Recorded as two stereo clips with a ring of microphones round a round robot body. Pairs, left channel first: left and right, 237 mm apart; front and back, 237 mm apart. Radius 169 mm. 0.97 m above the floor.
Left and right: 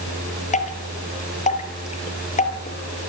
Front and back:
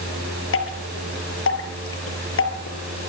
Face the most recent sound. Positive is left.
turn(degrees=30)